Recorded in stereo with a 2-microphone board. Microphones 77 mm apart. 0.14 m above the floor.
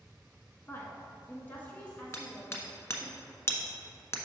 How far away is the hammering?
About 0.8 m.